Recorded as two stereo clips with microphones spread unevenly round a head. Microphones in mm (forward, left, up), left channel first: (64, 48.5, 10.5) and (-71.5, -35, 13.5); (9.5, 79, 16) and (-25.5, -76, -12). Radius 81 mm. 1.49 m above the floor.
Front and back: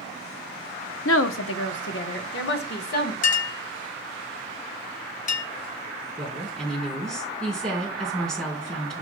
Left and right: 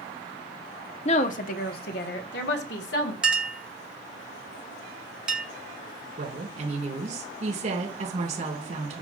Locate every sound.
1.1 s a woman speaking: 25° left, 0.8 m; by 3.1 s 60° left, 1.9 m
3.2 s a clink: 10° right, 1.2 m
6.2 s a woman speaking: 55° right, 4.5 m